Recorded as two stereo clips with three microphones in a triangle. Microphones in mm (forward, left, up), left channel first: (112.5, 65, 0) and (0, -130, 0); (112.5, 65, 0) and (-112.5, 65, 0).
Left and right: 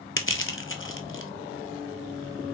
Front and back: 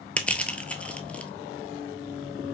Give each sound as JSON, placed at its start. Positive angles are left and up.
{"t": 0.2, "sound": "crushing", "azimuth_deg": 85, "distance_m": 0.7}